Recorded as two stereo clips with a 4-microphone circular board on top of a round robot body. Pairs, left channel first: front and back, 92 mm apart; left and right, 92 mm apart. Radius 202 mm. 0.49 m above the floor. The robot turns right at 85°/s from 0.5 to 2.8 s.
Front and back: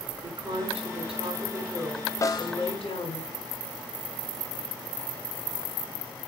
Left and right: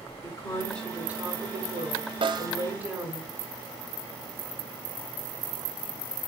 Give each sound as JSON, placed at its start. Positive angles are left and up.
{"t": 0.2, "sound": "a woman speaking", "azimuth_deg": 145, "distance_m": 6.5}
{"t": 2.2, "sound": "a snare drum", "azimuth_deg": -60, "distance_m": 0.6}